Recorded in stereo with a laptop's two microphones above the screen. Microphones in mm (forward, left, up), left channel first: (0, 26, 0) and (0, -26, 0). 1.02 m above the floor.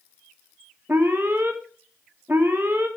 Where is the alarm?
40° right (ahead or behind), 1.9 m.